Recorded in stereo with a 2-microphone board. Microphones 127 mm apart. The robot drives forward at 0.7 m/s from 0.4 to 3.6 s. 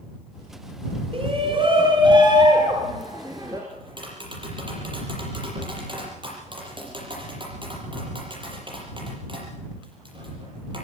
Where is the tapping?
40° right (ahead or behind), 7 m.